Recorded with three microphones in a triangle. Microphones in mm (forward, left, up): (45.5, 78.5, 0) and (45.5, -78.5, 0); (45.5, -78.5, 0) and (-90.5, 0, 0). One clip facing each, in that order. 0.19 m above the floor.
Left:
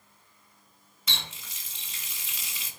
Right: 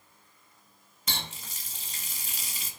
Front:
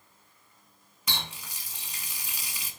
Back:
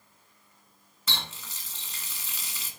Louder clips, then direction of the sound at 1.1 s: Right 3 dB, front 1 dB; 100° right.